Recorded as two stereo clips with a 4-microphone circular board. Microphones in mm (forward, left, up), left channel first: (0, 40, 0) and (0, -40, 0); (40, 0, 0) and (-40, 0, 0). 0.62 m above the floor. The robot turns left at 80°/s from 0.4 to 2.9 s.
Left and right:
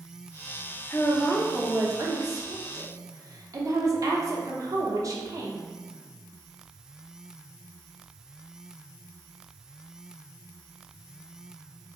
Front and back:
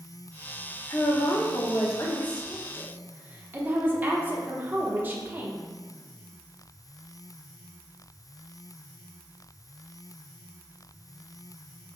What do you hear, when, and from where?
0.9 s a woman speaking: 40° left, 0.9 m; by 5.6 s 120° right, 0.9 m